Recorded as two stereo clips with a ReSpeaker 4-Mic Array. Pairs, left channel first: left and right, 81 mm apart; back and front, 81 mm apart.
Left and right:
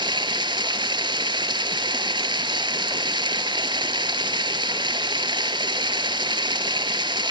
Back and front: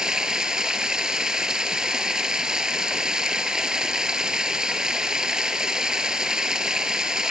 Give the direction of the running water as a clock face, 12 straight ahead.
3 o'clock.